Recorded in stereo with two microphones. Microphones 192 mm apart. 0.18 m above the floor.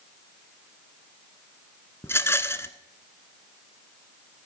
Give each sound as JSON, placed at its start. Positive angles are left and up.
{"t": 2.0, "sound": "a rattle", "side_deg": 15, "distance_m": 0.8}